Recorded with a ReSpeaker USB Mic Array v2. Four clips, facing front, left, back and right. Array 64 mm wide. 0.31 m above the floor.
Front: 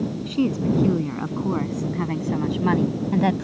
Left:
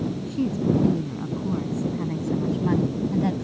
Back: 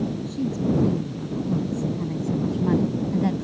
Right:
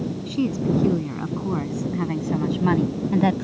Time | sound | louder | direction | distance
0.3 | a woman speaking | right 1 dB, front 5 dB | 25° right | ?